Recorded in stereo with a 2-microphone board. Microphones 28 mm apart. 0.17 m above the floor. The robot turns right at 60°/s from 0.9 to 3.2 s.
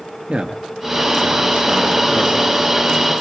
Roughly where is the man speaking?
Right.